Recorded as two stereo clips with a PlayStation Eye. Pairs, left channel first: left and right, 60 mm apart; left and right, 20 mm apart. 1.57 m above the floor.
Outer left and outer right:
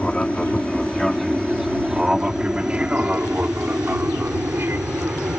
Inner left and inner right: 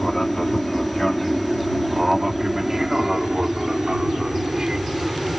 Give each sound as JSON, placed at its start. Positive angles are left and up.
{"t": 0.0, "sound": "an aircraft", "side_deg": 15}